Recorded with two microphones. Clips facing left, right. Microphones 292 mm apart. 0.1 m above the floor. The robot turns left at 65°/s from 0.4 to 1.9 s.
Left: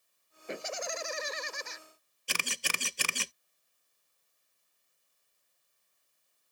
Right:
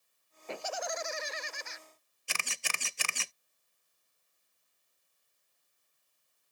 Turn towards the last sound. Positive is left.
turn(degrees=45)  # may be behind; listen again after turning